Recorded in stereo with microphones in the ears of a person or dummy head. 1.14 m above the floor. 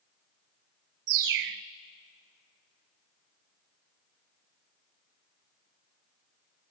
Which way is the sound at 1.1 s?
60° right (ahead or behind).